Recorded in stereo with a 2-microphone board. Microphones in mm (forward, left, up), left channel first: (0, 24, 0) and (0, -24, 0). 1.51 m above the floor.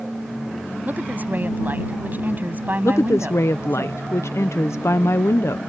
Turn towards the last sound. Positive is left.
turn(degrees=80)